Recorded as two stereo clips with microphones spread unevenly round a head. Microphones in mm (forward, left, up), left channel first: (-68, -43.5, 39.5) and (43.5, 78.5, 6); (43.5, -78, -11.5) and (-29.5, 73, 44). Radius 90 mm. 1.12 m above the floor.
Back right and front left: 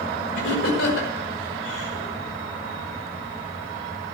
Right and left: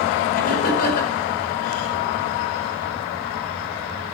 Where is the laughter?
105° right, 5.5 m.